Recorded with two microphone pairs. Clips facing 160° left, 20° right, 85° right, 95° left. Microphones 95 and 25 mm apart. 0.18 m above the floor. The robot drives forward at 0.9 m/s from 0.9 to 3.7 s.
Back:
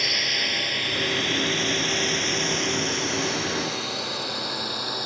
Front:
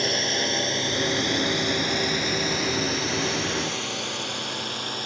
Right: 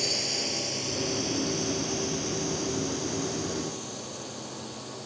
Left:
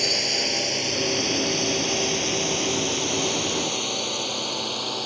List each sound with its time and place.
0.0 s a drone: 35° left; by 5.1 s 80° left